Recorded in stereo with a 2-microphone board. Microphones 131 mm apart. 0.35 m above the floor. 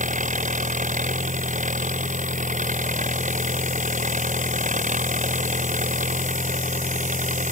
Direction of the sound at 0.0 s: 80° right.